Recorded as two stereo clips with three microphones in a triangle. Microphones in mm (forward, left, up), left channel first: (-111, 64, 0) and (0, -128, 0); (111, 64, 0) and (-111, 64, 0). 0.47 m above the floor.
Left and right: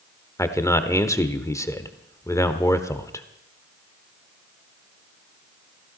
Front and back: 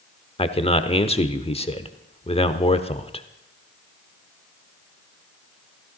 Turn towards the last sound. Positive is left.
turn(degrees=50)